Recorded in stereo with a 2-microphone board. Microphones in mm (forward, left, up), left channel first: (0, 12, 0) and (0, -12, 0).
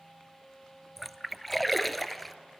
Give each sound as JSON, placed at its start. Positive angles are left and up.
{"t": 1.0, "sound": "a splash", "side_deg": 5, "distance_m": 0.5}